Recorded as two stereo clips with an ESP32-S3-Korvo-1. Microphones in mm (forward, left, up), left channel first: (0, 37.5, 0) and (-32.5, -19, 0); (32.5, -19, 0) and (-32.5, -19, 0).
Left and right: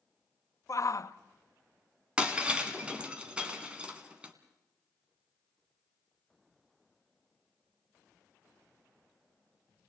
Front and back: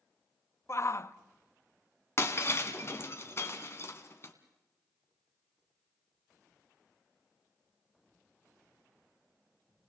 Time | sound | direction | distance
0.7 | a shout | 35° left | 0.7 m
2.2 | breaking glass | 50° right | 1.7 m